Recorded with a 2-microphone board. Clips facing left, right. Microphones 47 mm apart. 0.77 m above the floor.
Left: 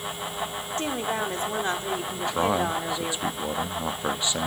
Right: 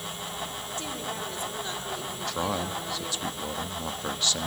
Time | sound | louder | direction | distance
0.8 | a woman speaking | left 8 dB | 40° left (ahead or behind) | 2.5 m
2.2 | a man speaking | left 6 dB | 20° left (ahead or behind) | 0.8 m